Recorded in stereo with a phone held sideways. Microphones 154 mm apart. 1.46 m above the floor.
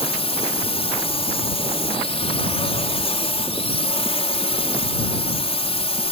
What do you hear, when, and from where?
0.0 s a drone: 40° left (ahead or behind)